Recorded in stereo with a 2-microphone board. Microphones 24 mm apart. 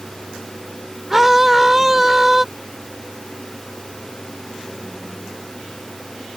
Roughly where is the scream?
Centre.